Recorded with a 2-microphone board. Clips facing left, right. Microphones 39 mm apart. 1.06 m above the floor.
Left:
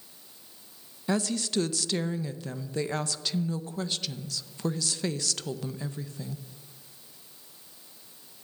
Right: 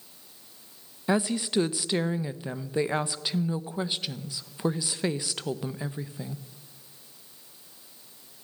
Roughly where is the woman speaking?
Centre.